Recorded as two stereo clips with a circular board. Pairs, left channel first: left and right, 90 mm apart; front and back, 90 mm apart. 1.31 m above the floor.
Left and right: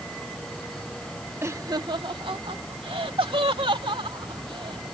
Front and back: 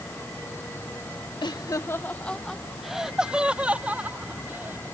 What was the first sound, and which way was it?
Laughter, 30° right.